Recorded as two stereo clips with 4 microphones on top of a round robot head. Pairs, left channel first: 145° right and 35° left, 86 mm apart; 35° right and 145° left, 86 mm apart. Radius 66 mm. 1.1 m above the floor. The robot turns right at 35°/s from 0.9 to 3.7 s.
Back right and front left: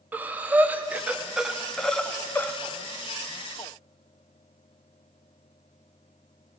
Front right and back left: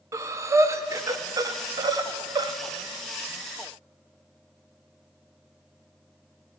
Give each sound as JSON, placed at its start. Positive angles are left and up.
{"t": 0.1, "sound": "breathing", "azimuth_deg": 100, "distance_m": 0.7}